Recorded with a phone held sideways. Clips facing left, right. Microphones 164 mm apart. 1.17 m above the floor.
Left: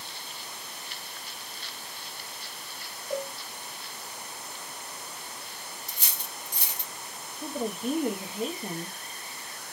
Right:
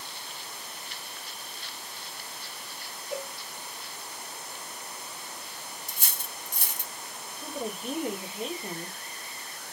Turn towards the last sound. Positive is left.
turn(degrees=40)  # may be behind; listen again after turning